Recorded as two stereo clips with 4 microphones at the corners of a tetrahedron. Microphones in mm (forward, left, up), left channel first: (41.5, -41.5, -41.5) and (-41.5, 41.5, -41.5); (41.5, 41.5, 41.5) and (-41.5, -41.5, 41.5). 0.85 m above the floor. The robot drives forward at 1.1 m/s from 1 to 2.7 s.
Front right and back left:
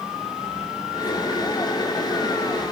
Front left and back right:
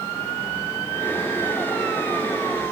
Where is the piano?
No piano in this recording.